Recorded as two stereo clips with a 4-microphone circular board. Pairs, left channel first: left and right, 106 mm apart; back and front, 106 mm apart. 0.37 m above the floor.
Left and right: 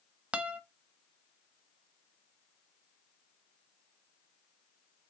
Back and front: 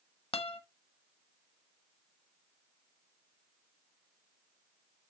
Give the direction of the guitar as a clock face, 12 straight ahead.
6 o'clock.